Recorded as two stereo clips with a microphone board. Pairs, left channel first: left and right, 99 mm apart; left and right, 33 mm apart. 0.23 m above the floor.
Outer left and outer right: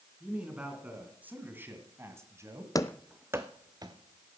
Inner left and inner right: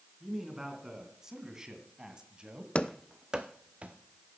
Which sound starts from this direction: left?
Running footsteps, at 2.8 s.